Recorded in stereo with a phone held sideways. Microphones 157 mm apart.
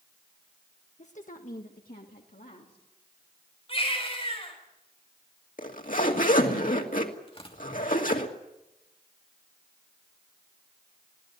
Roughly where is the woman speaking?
Left.